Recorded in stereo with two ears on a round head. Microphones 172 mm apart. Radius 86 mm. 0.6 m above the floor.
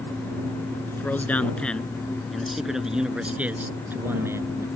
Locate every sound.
0.9 s a man speaking: 10° left (ahead or behind); by 4.7 s 15° right (ahead or behind)